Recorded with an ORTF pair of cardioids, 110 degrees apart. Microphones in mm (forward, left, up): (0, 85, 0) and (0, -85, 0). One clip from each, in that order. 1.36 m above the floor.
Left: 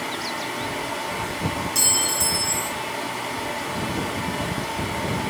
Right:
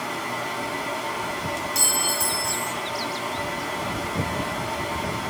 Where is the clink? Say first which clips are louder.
Left 1 dB; 10° left, 0.8 m.